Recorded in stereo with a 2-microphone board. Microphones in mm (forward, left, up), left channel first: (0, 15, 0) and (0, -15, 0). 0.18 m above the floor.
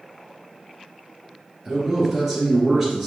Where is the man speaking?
5° right (ahead or behind), 2.5 m.